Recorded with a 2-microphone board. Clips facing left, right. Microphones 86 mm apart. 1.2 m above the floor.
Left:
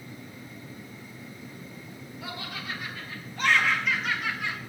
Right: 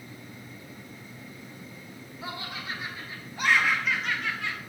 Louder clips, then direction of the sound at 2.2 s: Right 1 dB; 30° right (ahead or behind).